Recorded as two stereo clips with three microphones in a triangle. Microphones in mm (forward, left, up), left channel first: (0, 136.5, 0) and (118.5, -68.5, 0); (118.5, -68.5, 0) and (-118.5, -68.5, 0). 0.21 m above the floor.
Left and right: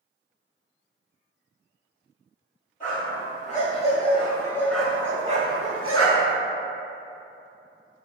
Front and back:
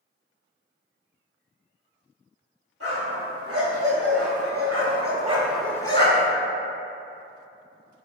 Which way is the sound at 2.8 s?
170° left.